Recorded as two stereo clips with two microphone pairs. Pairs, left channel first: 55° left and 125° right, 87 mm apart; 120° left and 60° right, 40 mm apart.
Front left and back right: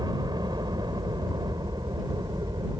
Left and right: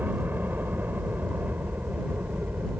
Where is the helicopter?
95° right; by 2.8 s 90° right.